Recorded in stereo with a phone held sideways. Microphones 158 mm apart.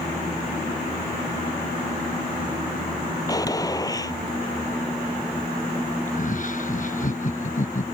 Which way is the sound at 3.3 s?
25° left (ahead or behind).